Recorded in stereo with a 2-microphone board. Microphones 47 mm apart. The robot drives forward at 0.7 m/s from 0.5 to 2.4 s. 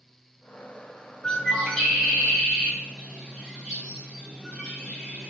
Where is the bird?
15° left (ahead or behind), 0.6 m; by 5.3 s 10° left (ahead or behind), 1.3 m.